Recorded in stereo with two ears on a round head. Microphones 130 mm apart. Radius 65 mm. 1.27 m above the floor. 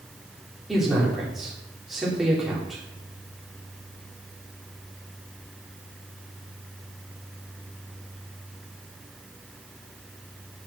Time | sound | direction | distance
0.7 | a man speaking | centre (ahead or behind) | 4 m